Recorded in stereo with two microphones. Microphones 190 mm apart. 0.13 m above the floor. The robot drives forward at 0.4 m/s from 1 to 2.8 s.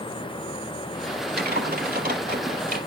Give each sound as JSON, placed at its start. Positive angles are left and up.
{"t": 1.4, "sound": "typing on a keyboard", "side_deg": -55, "distance_m": 3.0}